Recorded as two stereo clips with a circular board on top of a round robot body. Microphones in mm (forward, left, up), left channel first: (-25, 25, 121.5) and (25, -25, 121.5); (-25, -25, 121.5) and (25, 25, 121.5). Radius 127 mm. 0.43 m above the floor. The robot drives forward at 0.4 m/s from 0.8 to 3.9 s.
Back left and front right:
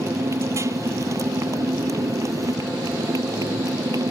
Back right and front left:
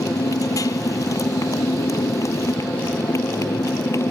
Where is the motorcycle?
95° right; by 4.1 s 85° right.